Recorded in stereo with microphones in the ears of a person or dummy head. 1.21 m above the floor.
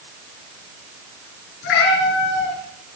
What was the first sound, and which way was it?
A cat meowing, 65° left (ahead or behind).